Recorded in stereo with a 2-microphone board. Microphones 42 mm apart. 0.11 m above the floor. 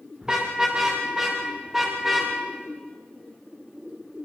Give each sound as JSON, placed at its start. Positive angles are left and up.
{"t": 0.2, "sound": "a car horn", "side_deg": -20, "distance_m": 6.5}